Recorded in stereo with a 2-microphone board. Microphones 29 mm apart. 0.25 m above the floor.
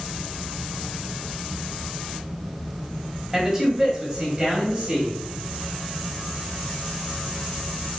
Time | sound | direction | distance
3.3 | a man speaking | 15° right (ahead or behind) | 1.5 m